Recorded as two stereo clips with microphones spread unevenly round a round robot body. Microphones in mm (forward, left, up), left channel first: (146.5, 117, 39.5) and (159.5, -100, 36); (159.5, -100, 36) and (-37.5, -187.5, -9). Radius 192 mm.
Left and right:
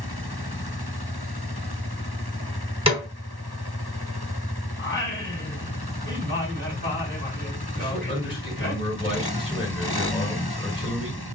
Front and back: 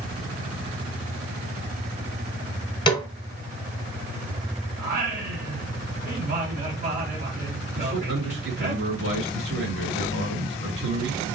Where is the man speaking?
140° right, 2.5 m.